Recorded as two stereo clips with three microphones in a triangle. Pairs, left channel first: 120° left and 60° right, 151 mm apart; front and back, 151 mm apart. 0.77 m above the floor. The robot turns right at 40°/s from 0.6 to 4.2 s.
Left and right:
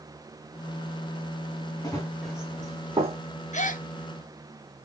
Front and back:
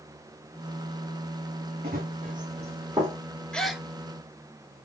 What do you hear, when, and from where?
1.8 s running footsteps: 175° right, 2.5 m; by 3.2 s 105° right, 2.5 m
3.5 s a gasp: 85° left, 0.8 m; by 3.9 s 95° left, 0.8 m